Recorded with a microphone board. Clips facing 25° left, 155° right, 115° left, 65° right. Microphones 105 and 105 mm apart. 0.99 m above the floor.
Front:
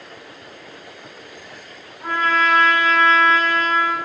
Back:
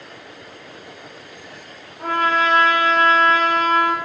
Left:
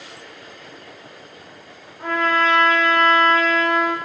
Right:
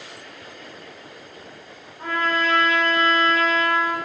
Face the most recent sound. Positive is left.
turn(degrees=-175)